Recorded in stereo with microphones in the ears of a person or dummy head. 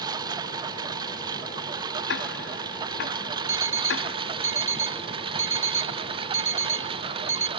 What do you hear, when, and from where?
0.0 s a lawn mower: 20° right (ahead or behind); by 7.6 s 30° right (ahead or behind)
2.1 s ticking: 60° left (ahead or behind)
3.5 s an alarm clock: 15° right (ahead or behind)